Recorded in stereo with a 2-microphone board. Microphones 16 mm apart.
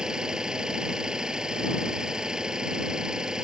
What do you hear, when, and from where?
0.0 s an engine running: 50° right (ahead or behind)